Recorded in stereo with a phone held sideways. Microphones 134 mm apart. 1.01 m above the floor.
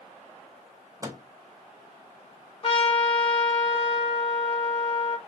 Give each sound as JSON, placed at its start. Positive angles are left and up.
{"t": 1.0, "sound": "a microwave", "side_deg": -25, "distance_m": 0.8}
{"t": 2.6, "sound": "a trumpet", "side_deg": 40, "distance_m": 1.1}